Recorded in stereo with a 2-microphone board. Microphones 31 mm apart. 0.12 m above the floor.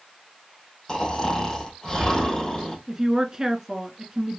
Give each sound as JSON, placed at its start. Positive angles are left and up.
{"t": 0.9, "sound": "snoring", "side_deg": 20, "distance_m": 2.0}
{"t": 2.9, "sound": "a woman speaking", "side_deg": -20, "distance_m": 1.1}